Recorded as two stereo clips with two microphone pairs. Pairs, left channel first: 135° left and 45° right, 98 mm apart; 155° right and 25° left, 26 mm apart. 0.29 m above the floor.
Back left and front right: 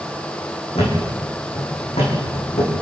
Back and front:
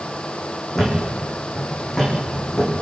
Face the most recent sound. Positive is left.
turn(degrees=130)